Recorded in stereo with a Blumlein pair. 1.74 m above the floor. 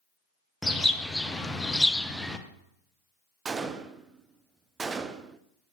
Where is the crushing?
I don't hear crushing.